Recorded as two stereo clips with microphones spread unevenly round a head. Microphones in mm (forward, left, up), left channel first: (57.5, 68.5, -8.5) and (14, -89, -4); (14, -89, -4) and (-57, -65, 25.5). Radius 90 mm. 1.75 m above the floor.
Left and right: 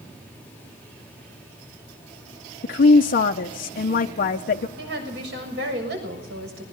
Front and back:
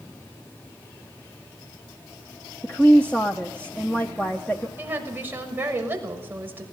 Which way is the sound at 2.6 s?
80° left.